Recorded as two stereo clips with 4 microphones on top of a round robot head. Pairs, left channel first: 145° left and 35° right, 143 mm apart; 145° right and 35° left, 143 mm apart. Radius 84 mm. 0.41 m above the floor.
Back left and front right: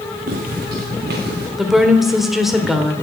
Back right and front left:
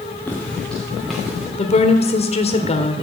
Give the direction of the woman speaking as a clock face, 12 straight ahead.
4 o'clock.